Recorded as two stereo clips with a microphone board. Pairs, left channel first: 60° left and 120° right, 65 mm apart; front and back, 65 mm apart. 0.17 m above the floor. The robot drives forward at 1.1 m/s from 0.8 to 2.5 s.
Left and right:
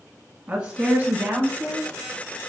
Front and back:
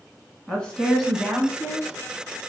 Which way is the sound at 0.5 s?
60° right.